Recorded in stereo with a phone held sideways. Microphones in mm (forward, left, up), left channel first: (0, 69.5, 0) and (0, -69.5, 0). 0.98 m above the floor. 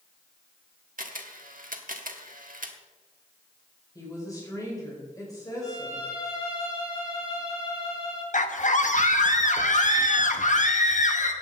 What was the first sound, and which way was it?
A camera shutter, 80° right.